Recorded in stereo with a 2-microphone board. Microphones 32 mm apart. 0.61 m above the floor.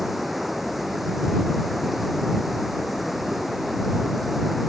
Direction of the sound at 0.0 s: 5° right (ahead or behind).